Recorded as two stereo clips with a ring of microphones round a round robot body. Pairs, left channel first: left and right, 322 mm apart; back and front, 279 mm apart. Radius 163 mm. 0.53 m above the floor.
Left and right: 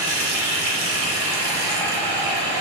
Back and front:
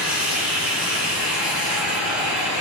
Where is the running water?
75° right, 1.1 m.